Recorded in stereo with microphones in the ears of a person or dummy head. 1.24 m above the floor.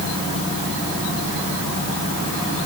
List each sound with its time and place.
Only background noise.